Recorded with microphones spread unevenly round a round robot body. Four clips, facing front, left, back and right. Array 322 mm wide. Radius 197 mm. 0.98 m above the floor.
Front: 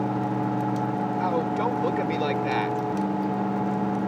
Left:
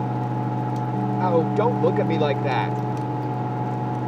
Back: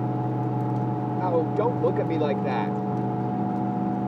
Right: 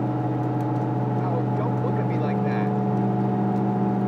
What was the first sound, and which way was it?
A man speaking, 90° left.